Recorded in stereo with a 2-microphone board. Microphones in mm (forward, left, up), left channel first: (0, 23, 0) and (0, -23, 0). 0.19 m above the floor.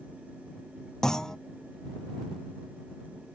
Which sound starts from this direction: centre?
A clunk, at 1.0 s.